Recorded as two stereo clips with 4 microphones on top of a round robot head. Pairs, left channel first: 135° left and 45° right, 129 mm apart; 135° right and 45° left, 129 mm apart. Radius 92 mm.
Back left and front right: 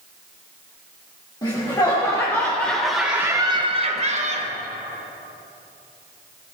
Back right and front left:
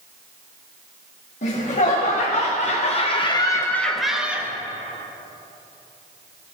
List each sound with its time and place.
1.4 s laughter: 165° right, 2.5 m; by 4.5 s 30° right, 1.5 m